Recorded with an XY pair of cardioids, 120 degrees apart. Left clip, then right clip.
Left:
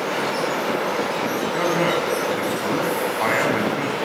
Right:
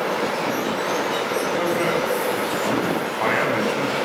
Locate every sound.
1.5 s a man speaking: 10° left, 8.5 m